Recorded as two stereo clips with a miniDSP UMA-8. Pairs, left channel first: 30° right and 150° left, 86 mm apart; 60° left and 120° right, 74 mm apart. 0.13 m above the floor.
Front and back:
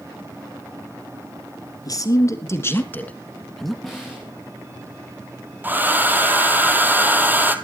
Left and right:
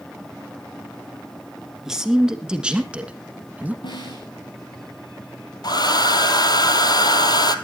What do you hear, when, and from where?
1.9 s a man speaking: 40° right, 2 m; by 3.7 s 125° right, 1.6 m
3.8 s a snare drum: 55° left, 4.5 m
5.6 s a hair dryer: 80° left, 1.2 m